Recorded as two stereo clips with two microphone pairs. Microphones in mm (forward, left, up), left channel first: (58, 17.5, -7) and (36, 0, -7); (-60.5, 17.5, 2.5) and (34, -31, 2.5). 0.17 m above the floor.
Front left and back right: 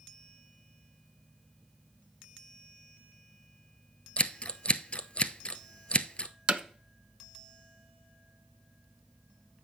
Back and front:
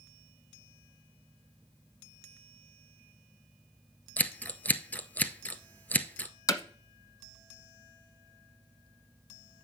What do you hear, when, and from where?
4.2 s scissors: 80° left, 0.7 m
6.5 s hammering: 170° right, 1.0 m